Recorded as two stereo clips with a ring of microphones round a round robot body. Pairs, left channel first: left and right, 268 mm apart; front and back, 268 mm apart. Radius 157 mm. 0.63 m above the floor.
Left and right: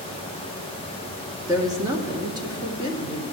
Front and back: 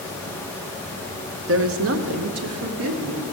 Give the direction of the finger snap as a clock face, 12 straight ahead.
No finger snap in this recording.